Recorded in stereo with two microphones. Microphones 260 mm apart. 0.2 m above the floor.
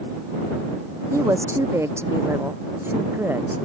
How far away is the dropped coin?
I don't hear a dropped coin.